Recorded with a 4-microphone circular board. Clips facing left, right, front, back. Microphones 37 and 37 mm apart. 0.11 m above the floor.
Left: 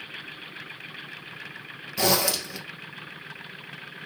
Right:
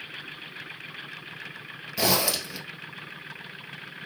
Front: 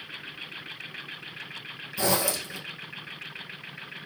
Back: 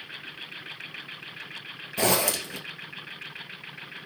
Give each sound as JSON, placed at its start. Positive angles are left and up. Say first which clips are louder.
{"t": 2.0, "sound": "a zipper", "louder": "left 1 dB, back 2 dB", "azimuth_deg": -175, "distance_m": 1.6}